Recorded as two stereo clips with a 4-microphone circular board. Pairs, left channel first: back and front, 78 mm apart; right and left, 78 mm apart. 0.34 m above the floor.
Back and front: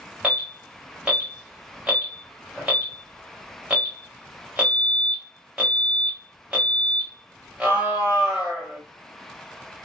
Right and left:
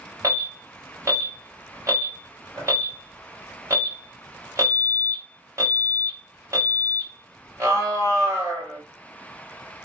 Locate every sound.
0.2 s an alarm: 65° left, 2 m